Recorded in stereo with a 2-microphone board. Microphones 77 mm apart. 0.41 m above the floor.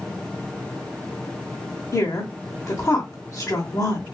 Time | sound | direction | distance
1.9 | a woman speaking | 40° left (ahead or behind) | 1.1 m